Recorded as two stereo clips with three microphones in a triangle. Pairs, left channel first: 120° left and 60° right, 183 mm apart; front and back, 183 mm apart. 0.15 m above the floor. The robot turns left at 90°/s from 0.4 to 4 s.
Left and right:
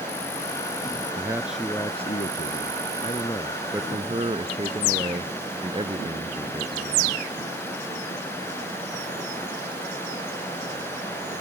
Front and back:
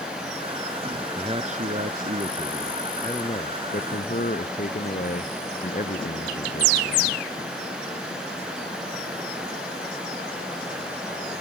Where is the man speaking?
115° right; by 7.2 s 10° right.